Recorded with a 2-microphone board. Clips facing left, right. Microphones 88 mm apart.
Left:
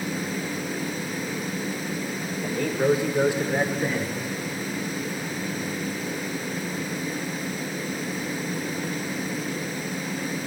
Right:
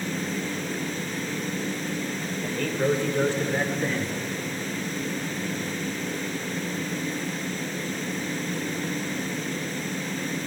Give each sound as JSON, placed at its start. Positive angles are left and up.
{"t": 2.4, "sound": "a man speaking", "side_deg": 15, "distance_m": 2.0}